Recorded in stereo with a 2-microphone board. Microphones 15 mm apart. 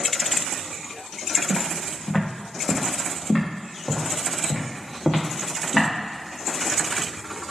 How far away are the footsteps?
About 2 m.